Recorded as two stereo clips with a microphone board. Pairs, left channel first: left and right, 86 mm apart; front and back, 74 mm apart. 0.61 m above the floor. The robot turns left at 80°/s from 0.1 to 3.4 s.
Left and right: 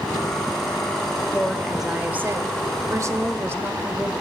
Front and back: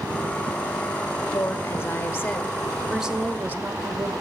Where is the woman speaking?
30° left, 0.8 m; by 4.1 s 135° right, 0.8 m.